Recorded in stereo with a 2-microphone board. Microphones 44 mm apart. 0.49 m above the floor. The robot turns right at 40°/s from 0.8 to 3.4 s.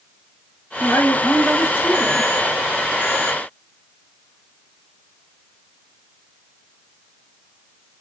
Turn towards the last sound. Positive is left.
turn(degrees=175)